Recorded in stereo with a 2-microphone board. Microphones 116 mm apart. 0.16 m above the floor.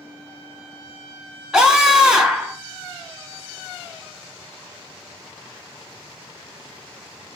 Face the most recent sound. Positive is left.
turn(degrees=-5)  # may be behind; listen again after turning